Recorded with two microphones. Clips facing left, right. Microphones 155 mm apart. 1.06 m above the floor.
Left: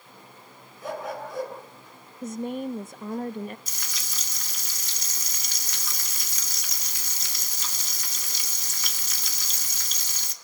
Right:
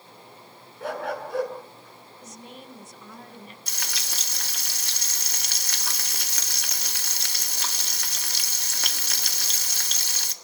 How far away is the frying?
About 1.7 m.